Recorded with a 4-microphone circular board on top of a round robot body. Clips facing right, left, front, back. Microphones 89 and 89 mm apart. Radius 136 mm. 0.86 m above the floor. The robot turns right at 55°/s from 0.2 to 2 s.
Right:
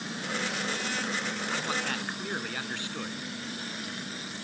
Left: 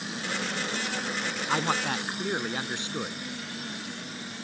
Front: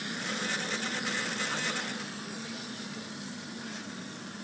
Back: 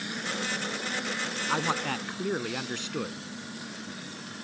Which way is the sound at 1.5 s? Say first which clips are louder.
Left 7 dB, back 6 dB; 135° left.